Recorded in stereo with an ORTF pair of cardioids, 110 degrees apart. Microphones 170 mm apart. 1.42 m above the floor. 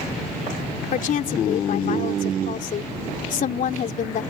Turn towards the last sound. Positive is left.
turn(degrees=50)